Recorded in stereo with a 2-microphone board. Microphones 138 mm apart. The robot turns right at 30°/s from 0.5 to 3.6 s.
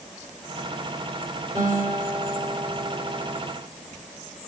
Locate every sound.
1.6 s a guitar: 160° right, 5.5 m; by 3.3 s 105° right, 5.5 m